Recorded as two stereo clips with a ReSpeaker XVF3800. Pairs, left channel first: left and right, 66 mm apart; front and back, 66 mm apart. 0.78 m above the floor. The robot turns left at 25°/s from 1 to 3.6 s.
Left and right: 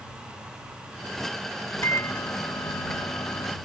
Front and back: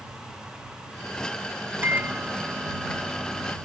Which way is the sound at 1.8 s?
130° left.